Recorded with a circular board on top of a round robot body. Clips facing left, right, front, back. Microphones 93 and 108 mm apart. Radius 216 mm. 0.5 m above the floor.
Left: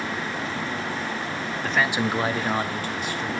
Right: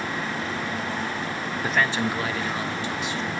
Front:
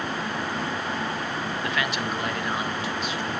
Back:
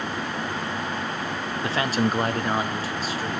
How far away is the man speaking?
About 0.9 m.